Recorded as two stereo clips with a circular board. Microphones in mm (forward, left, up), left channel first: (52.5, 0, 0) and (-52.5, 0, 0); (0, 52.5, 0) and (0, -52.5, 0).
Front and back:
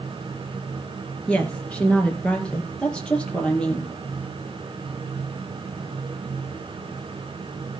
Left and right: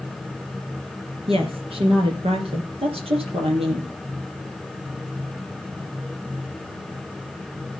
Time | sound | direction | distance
1.3 | a woman speaking | 80° right | 3 m